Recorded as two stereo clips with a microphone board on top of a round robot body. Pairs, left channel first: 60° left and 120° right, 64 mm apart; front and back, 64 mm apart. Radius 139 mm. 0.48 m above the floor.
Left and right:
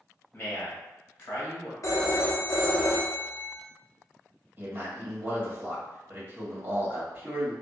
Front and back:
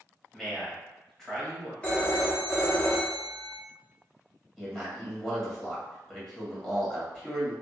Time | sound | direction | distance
0.3 | a man speaking | 75° left | 1.7 m
1.8 | a phone ringing | 65° left | 0.9 m
4.6 | a man speaking | 90° right | 1.6 m